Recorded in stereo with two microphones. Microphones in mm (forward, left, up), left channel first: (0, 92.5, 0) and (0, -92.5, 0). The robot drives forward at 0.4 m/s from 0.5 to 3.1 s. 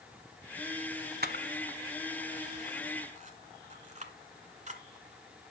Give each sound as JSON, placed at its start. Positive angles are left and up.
{"t": 1.2, "sound": "a camera shutter", "side_deg": -60, "distance_m": 1.0}